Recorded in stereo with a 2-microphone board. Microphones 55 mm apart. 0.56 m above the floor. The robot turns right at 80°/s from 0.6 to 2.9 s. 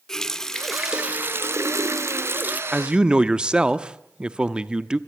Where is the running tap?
170° left, 0.8 m; by 2.6 s 30° right, 0.8 m.